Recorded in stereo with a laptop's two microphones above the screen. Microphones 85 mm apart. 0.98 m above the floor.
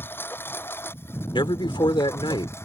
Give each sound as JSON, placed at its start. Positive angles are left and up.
{"t": 0.0, "sound": "a lawn mower", "side_deg": 25}
{"t": 1.3, "sound": "a man speaking", "side_deg": 70}